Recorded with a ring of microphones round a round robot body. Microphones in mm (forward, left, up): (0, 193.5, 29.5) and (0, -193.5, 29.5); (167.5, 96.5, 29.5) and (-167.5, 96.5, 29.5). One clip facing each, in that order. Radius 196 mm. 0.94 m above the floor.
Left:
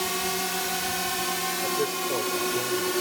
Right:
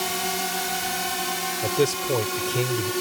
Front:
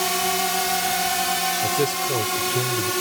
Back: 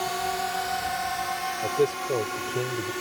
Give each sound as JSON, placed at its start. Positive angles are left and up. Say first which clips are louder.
{"t": 0.0, "sound": "a drone", "louder": "even, front 5 dB", "azimuth_deg": -5}
{"t": 1.6, "sound": "a man speaking", "louder": "right 6 dB, back 1 dB", "azimuth_deg": -60}